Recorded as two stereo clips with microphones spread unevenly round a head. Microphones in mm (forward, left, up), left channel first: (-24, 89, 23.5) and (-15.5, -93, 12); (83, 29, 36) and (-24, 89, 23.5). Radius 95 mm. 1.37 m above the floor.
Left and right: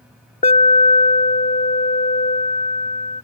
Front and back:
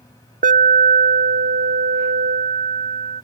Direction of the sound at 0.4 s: 150° left.